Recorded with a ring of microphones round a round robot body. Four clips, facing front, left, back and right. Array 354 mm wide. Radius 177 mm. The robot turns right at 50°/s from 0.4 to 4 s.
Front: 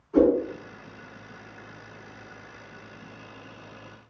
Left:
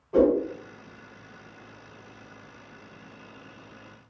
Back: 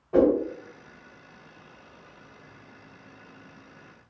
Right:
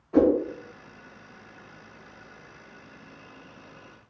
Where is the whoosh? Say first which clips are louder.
Even, front 1 dB; 170° left, 1.8 m.